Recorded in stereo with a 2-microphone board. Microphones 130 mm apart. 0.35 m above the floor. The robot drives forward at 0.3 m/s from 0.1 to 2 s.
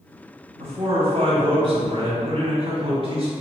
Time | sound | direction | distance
0.6 | a man speaking | 45° right (ahead or behind) | 1.8 m